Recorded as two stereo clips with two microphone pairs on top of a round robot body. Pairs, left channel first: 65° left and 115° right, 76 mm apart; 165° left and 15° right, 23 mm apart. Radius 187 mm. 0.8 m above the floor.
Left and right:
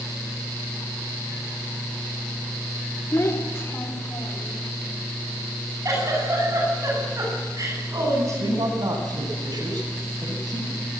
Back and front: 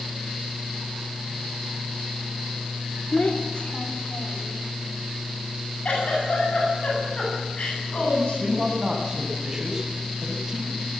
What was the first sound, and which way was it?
A child speaking, 125° left.